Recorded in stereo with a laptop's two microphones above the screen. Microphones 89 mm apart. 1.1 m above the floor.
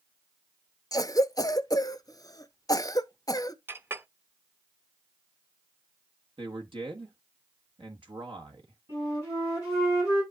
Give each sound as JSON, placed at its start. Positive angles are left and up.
{"t": 0.9, "sound": "a cough", "side_deg": 45, "distance_m": 0.7}
{"t": 3.7, "sound": "a clink", "side_deg": -25, "distance_m": 0.6}
{"t": 6.4, "sound": "a man speaking", "side_deg": -70, "distance_m": 1.2}
{"t": 8.9, "sound": "a flute", "side_deg": -30, "distance_m": 7.5}